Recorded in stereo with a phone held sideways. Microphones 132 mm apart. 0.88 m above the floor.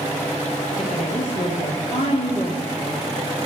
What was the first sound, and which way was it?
A woman speaking, 65° left (ahead or behind).